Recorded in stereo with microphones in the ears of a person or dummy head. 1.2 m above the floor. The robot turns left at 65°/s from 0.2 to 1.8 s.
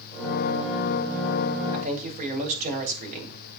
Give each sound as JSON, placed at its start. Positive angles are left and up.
{"t": 1.7, "sound": "a man speaking", "side_deg": -45, "distance_m": 3.0}